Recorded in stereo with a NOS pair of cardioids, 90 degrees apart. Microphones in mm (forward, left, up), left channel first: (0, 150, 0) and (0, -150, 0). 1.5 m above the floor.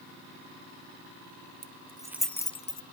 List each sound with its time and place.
1.6 s keys jangling: 30° right, 1.1 m; by 2.8 s 35° left, 1.1 m